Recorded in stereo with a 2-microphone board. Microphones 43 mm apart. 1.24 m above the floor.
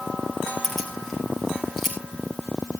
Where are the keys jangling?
5° left (ahead or behind), 5 m; by 1.9 s centre (ahead or behind), 6.5 m.